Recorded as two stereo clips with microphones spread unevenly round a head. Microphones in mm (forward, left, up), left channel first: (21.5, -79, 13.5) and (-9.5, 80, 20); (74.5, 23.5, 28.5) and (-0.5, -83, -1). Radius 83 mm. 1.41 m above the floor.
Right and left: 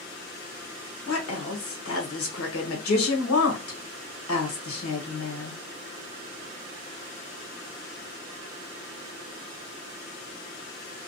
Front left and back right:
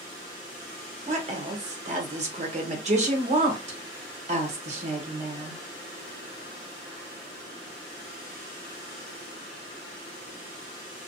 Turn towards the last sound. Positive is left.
turn(degrees=-85)